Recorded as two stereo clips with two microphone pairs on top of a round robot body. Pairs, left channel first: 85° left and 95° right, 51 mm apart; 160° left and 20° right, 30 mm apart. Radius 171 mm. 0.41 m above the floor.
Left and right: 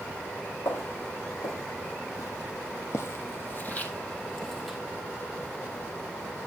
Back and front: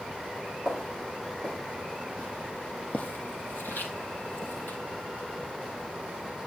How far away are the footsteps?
About 2 m.